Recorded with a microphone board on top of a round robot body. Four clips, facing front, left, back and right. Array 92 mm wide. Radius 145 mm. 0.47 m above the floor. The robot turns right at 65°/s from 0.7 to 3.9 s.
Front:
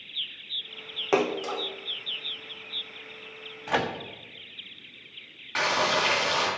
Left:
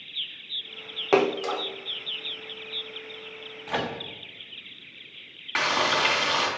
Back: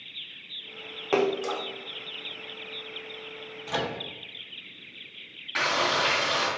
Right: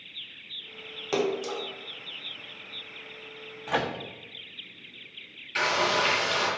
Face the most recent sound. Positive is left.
turn(degrees=80)